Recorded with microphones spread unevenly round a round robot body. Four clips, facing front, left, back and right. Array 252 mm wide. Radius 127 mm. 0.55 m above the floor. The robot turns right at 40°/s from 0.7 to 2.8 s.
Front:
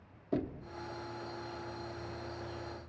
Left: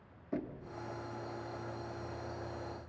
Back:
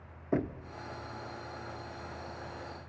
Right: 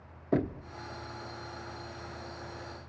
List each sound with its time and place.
0.3 s knocking: 110° right, 0.7 m